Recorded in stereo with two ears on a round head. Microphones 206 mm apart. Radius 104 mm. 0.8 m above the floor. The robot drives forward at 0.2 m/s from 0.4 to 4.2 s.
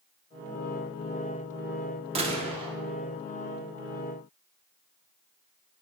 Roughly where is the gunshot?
Right.